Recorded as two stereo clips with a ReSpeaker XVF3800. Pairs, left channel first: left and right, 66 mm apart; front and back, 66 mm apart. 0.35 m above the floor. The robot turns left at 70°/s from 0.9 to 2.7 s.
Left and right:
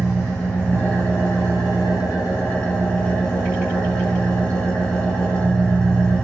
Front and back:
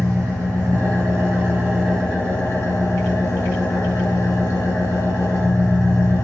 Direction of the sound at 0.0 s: 155° left.